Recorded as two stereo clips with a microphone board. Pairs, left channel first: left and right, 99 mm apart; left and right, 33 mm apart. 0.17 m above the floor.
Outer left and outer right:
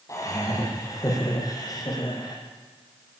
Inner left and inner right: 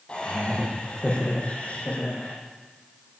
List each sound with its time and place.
0.1 s laughter: 30° left (ahead or behind), 8.5 m; by 2.4 s 40° left (ahead or behind), 8.5 m